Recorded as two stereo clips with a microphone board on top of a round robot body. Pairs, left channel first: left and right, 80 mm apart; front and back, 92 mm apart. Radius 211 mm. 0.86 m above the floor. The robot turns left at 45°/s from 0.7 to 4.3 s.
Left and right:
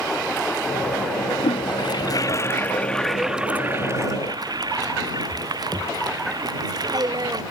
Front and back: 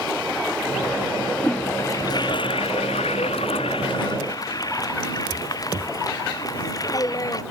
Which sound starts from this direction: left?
A toilet flushing, at 1.4 s.